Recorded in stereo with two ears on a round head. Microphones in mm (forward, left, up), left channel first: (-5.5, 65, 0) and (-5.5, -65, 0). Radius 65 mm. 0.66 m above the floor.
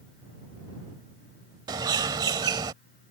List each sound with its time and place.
1.7 s a bird: 30° right (ahead or behind)